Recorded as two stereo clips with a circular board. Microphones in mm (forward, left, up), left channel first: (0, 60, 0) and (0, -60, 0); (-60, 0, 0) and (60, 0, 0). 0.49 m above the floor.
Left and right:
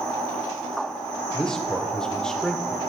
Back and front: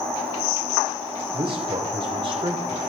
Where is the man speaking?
5° left, 1.1 m.